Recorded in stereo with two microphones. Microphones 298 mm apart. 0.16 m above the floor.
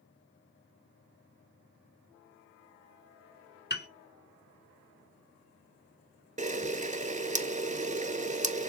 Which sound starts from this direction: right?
A camera shutter, at 6.4 s.